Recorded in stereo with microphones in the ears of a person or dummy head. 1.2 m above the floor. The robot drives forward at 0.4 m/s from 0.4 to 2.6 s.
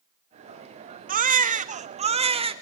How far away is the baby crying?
About 0.8 m.